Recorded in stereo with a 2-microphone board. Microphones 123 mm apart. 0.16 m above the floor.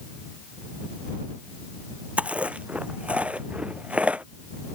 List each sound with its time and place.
2.2 s chewing: 10° right (ahead or behind)